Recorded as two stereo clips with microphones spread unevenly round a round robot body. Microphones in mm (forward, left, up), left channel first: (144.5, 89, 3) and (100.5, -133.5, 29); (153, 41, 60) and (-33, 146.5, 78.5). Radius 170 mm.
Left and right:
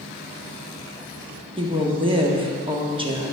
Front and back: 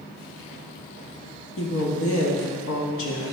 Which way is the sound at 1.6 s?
30° right.